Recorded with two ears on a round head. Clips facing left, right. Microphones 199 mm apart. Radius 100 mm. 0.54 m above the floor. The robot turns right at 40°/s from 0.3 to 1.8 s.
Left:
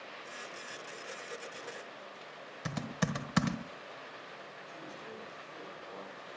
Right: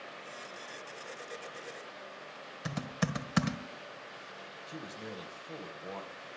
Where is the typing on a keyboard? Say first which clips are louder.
Even; centre (ahead or behind), 1.4 m.